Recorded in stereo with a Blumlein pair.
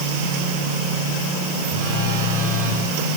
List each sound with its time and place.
1.7 s a phone buzzing: 40° right, 7 m